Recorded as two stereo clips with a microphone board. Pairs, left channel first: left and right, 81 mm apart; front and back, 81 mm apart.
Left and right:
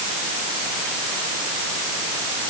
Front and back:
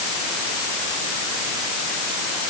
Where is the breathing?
I don't hear breathing.